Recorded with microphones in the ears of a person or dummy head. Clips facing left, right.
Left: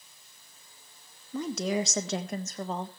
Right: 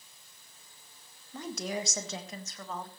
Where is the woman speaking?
70° left (ahead or behind), 2 m; by 2.9 s 20° left (ahead or behind), 1.3 m.